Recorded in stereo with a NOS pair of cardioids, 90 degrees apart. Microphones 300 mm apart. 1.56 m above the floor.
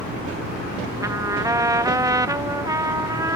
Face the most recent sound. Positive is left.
turn(degrees=-10)